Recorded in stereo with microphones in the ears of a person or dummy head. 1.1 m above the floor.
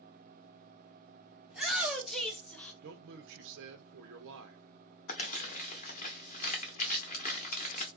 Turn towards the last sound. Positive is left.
turn(degrees=40)  # may be behind; listen again after turning